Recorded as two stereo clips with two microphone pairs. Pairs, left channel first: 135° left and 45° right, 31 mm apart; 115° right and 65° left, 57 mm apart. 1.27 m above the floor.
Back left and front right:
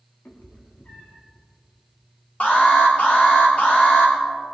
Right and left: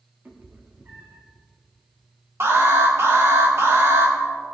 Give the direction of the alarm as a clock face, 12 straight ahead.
9 o'clock.